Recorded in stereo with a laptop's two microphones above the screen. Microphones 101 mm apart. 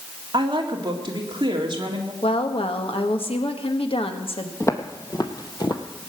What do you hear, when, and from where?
0.3 s a woman speaking: 50° right (ahead or behind), 2.0 m
2.2 s a woman speaking: 65° left (ahead or behind), 1.7 m
4.6 s footsteps: 30° left (ahead or behind), 1.8 m; by 5.8 s 45° left (ahead or behind), 1.6 m